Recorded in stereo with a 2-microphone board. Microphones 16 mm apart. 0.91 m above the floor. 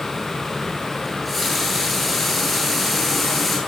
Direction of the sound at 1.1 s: Centre (ahead or behind).